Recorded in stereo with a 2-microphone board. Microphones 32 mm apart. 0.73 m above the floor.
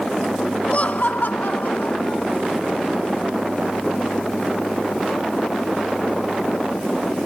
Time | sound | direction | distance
0.7 | laughter | 40° left (ahead or behind) | ?